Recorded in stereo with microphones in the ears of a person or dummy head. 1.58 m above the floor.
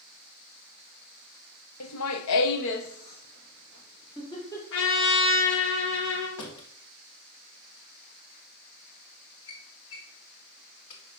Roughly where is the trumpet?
Left.